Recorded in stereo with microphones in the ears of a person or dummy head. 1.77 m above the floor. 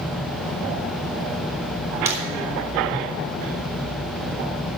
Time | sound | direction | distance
2.0 | breaking glass | 20° right (ahead or behind) | 3 m